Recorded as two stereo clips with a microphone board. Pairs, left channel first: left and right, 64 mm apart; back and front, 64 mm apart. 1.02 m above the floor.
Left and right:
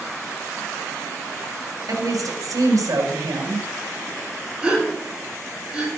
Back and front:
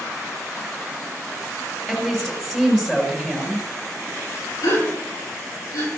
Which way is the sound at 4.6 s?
165° right.